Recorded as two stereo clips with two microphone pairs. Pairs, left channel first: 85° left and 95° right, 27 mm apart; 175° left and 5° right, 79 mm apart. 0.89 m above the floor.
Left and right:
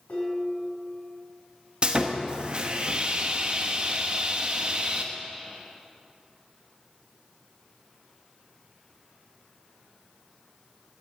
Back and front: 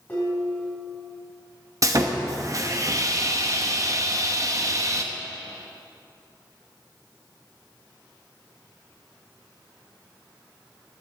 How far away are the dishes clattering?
About 5 m.